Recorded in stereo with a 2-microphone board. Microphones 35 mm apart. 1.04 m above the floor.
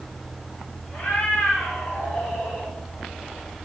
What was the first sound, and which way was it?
A cat meowing, 55° left (ahead or behind).